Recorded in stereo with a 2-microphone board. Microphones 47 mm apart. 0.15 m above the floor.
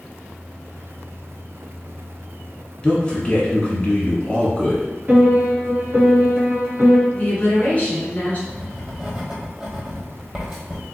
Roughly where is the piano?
Right.